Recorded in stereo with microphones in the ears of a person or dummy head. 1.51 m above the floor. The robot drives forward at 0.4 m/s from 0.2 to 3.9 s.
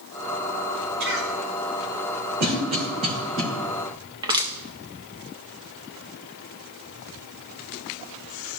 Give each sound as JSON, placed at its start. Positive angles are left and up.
{"t": 1.0, "sound": "a cough", "side_deg": -75, "distance_m": 3.5}
{"t": 2.4, "sound": "a cough", "side_deg": -55, "distance_m": 2.5}
{"t": 4.2, "sound": "crushing", "side_deg": -25, "distance_m": 0.7}